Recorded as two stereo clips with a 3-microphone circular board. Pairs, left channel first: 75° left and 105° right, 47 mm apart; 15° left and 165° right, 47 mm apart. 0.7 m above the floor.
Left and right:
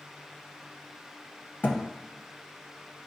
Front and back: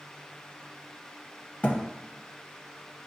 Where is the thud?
60° left, 0.6 m.